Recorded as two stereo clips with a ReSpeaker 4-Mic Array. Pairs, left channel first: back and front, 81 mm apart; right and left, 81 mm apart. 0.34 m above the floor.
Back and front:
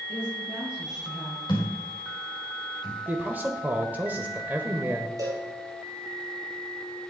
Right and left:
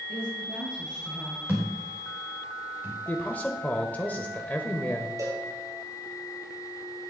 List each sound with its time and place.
0.1 s a woman speaking: 75° left, 5 m; by 1.4 s 85° left, 6 m
1.5 s a thud: 150° left, 5 m
3.1 s a man speaking: 45° right, 1.0 m
5.2 s a cowbell: 45° left, 4 m